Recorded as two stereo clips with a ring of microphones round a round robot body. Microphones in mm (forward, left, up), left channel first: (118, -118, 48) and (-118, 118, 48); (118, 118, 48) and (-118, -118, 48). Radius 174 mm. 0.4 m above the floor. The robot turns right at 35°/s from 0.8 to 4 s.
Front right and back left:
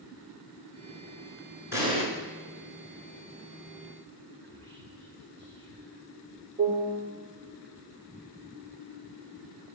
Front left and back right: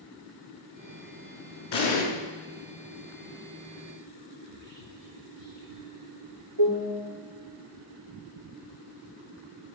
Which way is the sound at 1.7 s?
50° left.